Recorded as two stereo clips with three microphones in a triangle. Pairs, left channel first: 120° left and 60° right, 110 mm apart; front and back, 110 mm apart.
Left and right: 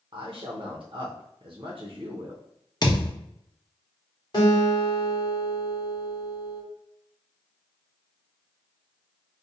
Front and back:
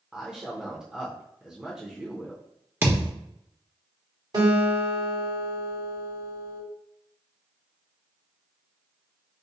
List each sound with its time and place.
0.1 s a man speaking: 95° right, 0.6 m
2.8 s a thud: 120° left, 1.0 m
4.3 s a guitar: 155° left, 1.4 m